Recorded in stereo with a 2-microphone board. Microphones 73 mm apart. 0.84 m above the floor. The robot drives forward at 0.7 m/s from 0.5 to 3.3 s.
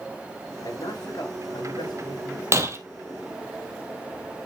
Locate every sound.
0.6 s a man speaking: 80° left, 4 m; by 2.4 s 75° left (ahead or behind), 4 m
2.5 s breaking glass: 40° right (ahead or behind), 1.0 m